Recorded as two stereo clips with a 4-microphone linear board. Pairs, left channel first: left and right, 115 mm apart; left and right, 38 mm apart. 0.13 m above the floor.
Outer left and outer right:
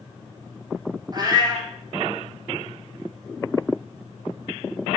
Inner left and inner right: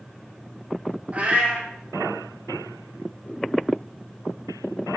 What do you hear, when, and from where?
1.1 s a cat meowing: 35° right (ahead or behind), 1.0 m